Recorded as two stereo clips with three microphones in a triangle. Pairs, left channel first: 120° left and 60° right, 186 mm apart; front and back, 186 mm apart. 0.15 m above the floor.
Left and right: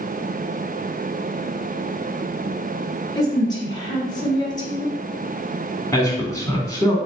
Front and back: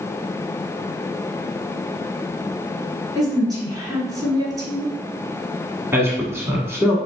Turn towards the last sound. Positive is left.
turn(degrees=135)